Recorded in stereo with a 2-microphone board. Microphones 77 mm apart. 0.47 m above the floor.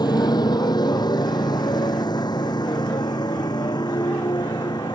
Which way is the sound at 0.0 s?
65° left (ahead or behind).